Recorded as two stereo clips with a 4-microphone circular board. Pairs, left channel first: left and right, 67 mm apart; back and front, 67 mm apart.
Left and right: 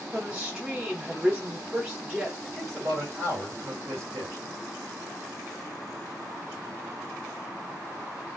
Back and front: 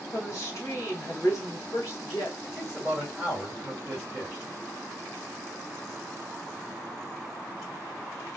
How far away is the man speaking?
About 2 m.